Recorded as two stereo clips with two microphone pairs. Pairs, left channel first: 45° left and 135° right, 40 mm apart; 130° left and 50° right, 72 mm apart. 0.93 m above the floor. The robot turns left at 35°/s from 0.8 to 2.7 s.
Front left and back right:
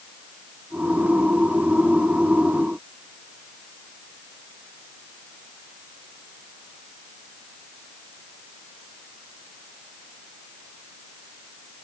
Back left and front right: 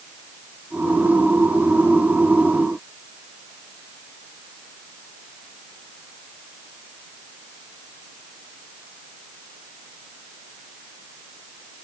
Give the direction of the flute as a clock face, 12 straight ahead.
I don't hear a flute.